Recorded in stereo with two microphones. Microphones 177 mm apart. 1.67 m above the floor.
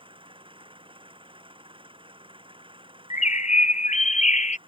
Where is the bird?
40° left (ahead or behind).